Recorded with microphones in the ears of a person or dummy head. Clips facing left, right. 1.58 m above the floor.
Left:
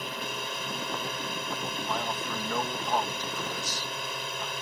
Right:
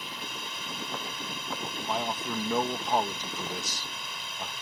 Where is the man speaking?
15° right (ahead or behind).